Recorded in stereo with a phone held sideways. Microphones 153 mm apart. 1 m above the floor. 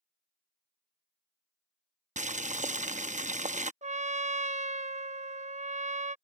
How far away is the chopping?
I don't hear chopping.